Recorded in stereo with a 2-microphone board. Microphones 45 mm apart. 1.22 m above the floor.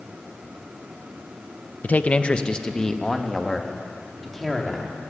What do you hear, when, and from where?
1.8 s a man speaking: 40° left (ahead or behind), 0.8 m; by 5.1 s centre (ahead or behind), 3 m